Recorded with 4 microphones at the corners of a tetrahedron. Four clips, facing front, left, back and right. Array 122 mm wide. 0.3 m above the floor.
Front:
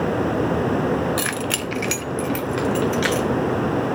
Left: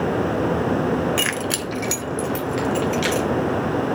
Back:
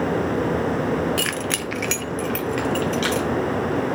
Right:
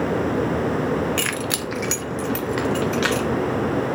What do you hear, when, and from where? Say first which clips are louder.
1.2 s keys jangling: left 1 dB, front 1 dB; straight ahead, 0.9 m; by 3.3 s 105° right, 3 m